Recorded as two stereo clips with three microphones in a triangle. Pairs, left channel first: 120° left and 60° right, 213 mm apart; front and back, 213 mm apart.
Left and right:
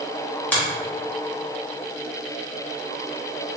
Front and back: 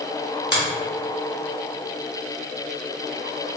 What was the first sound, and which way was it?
A finger snap, 35° left.